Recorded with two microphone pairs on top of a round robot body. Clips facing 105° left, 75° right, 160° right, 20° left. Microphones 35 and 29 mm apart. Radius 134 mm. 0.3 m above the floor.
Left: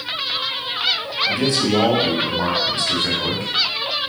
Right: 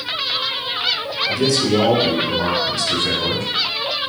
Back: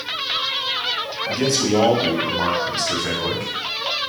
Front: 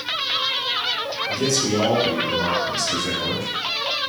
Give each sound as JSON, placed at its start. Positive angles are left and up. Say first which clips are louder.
{"t": 1.3, "sound": "a man speaking", "louder": "right 2 dB, back 3 dB", "azimuth_deg": 160, "distance_m": 3.0}